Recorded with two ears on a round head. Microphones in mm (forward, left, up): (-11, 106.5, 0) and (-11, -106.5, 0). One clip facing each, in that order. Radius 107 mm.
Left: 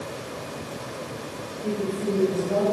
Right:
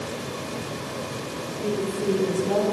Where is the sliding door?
No sliding door in this recording.